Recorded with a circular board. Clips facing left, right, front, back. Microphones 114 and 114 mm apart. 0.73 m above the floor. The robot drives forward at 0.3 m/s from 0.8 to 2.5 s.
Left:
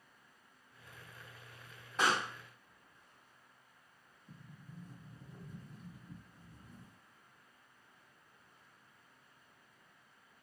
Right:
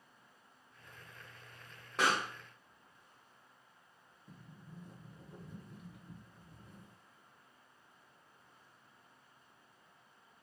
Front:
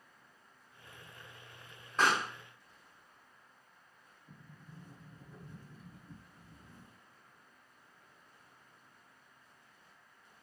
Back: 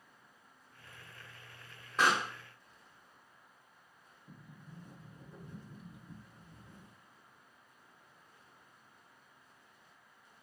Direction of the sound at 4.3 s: 105° right.